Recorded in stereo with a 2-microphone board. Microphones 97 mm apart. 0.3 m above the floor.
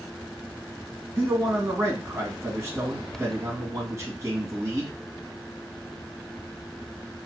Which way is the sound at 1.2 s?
30° right (ahead or behind).